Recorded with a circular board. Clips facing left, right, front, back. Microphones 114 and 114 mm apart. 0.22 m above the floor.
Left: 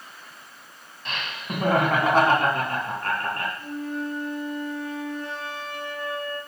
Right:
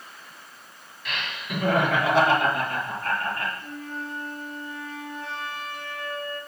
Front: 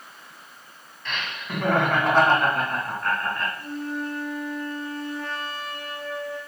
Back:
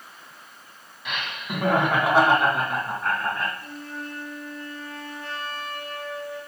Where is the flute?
55° left, 4 m.